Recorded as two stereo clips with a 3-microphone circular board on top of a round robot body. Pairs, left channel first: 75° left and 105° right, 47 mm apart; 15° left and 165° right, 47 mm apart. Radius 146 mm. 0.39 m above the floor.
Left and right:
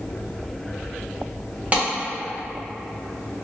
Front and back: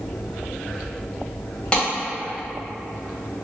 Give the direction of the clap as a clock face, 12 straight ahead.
2 o'clock.